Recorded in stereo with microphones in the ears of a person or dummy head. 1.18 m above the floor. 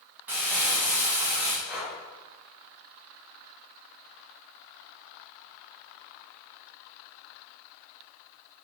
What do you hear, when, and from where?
0.3 s crumpling: 15° right (ahead or behind), 0.8 m
1.7 s breathing: centre (ahead or behind), 1.7 m